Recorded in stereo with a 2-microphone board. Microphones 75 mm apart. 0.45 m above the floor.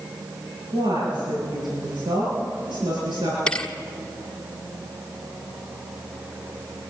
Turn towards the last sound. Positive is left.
turn(degrees=10)  # may be behind; listen again after turning